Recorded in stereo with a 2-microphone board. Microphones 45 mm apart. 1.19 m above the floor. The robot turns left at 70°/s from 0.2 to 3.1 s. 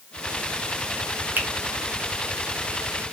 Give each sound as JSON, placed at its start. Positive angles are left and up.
{"t": 1.4, "sound": "a finger snap", "side_deg": -50, "distance_m": 0.5}